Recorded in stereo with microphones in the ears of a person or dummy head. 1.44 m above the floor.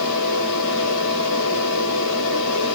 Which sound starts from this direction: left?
A fan, at 0.0 s.